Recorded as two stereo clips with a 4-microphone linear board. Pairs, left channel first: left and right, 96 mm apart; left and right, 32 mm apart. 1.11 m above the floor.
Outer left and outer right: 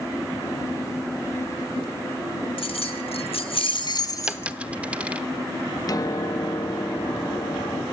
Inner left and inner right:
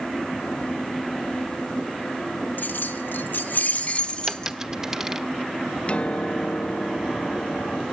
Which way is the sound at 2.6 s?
70° left (ahead or behind).